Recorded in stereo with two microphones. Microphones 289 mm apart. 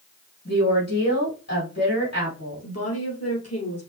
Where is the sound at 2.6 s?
60° left (ahead or behind), 2.5 m.